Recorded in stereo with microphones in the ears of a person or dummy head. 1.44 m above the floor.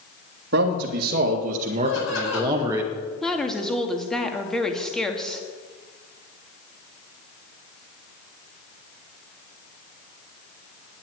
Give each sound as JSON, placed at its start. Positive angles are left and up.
{"t": 0.5, "sound": "a man speaking", "side_deg": -60, "distance_m": 2.0}
{"t": 1.9, "sound": "laughter", "side_deg": 80, "distance_m": 8.0}
{"t": 3.2, "sound": "a woman speaking", "side_deg": 5, "distance_m": 1.9}